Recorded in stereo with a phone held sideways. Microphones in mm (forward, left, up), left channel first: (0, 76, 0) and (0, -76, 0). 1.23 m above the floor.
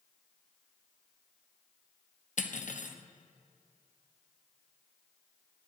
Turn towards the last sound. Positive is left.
turn(degrees=55)  # may be behind; listen again after turning